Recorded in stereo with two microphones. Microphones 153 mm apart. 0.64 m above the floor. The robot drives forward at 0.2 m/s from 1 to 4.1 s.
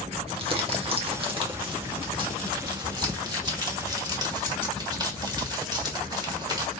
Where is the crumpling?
35° right (ahead or behind), 1.4 m; by 6.7 s 25° right (ahead or behind), 1.9 m.